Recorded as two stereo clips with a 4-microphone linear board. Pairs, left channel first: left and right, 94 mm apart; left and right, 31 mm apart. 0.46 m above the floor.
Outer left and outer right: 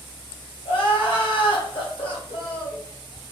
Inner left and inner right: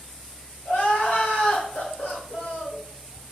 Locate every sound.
0.7 s crying: 75° left (ahead or behind), 2 m